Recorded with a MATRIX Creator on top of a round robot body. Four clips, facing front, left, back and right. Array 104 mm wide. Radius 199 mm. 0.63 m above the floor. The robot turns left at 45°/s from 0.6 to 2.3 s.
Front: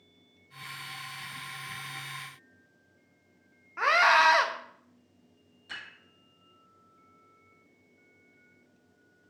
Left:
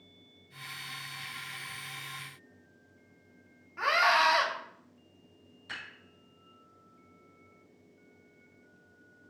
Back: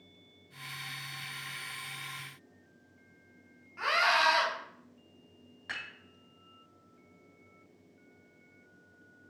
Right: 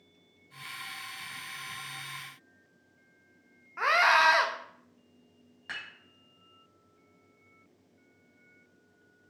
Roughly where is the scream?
Ahead right.